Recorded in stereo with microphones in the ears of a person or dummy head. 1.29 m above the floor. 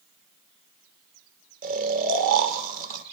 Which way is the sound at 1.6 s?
50° right (ahead or behind).